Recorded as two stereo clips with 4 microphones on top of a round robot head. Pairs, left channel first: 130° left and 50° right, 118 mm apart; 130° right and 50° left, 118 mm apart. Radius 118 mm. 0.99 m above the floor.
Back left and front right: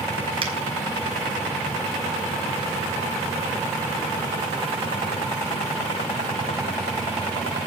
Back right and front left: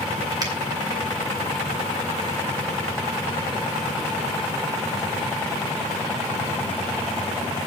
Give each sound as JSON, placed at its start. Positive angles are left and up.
{"t": 0.4, "sound": "a finger snap", "azimuth_deg": -5, "distance_m": 4.5}